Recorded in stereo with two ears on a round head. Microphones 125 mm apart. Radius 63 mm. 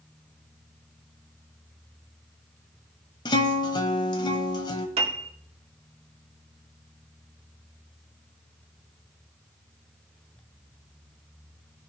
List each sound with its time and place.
3.2 s a guitar: 30° left (ahead or behind), 1.4 m
5.0 s a piano: 45° right (ahead or behind), 1.9 m